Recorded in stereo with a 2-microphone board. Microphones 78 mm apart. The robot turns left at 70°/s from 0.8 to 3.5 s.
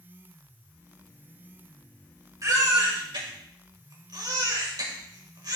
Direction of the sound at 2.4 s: 45° right.